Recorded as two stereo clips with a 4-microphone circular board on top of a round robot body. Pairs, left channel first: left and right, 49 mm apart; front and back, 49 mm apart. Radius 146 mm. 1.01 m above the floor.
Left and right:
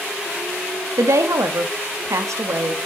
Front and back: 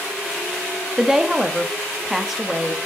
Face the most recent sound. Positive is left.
turn(degrees=-100)